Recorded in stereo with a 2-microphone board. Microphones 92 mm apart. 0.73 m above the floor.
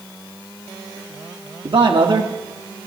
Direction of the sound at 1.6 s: 60° right (ahead or behind).